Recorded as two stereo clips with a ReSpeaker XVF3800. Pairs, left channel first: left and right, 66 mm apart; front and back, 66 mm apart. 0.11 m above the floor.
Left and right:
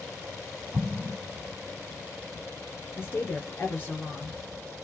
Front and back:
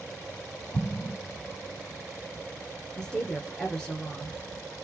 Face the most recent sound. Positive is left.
turn(degrees=70)